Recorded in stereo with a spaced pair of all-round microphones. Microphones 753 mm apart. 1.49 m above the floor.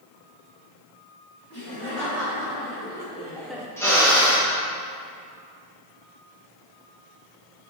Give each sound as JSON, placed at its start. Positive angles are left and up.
{"t": 1.5, "sound": "laughter", "side_deg": 20, "distance_m": 2.5}
{"t": 3.8, "sound": "a drill", "side_deg": 5, "distance_m": 2.5}